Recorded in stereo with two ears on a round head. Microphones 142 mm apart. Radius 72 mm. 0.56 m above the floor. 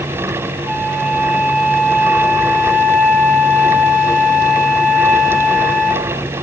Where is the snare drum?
I don't hear a snare drum.